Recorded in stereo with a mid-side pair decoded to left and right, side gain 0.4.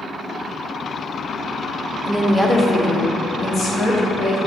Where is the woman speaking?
Straight ahead, 0.7 m; by 4.4 s 70° left, 1.4 m.